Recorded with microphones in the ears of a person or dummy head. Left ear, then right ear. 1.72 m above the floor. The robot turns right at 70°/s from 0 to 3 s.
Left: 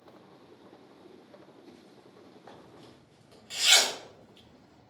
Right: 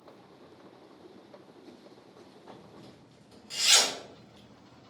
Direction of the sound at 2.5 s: 55° left (ahead or behind).